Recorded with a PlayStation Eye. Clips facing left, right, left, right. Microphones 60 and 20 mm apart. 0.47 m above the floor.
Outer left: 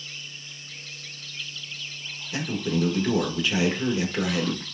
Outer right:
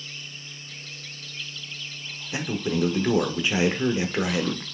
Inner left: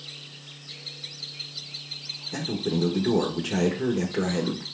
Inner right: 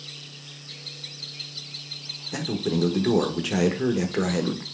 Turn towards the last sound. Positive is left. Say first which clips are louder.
# even, inner right 2 dB
turn(degrees=-25)  # may be behind; listen again after turning